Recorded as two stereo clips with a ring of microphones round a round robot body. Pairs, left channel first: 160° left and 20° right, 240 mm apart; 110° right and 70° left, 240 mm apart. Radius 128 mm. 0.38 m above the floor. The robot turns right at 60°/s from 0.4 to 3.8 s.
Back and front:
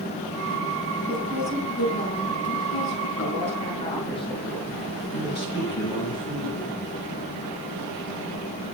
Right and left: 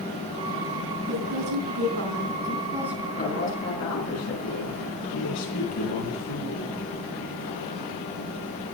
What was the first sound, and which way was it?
A woman speaking, 45° left.